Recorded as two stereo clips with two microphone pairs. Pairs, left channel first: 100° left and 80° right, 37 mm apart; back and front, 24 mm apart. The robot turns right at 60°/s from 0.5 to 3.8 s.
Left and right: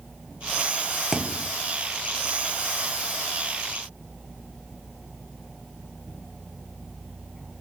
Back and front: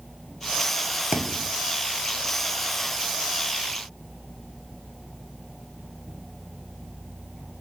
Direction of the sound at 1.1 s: Straight ahead.